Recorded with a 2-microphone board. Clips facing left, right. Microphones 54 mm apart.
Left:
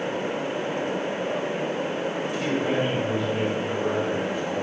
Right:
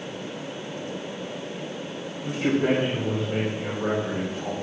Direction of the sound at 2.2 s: 60° right (ahead or behind).